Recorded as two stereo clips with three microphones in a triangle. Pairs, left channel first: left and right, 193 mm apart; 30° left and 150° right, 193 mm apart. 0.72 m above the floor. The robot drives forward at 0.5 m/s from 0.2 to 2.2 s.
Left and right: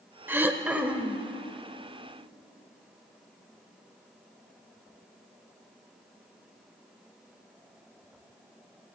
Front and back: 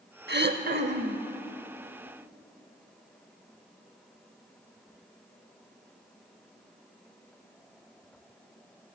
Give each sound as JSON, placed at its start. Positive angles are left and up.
{"t": 0.3, "sound": "throat clearing", "azimuth_deg": -170, "distance_m": 0.7}